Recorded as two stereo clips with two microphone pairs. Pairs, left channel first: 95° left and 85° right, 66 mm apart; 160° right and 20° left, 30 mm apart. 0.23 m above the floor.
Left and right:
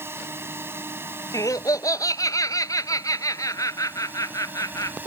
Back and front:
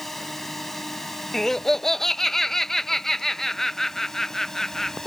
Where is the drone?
85° right; by 5.1 s 100° right.